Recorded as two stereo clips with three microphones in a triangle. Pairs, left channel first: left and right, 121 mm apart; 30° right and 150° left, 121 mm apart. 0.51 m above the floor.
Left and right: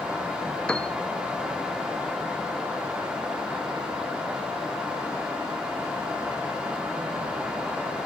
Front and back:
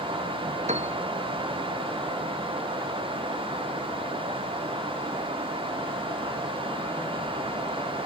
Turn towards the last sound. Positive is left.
turn(degrees=170)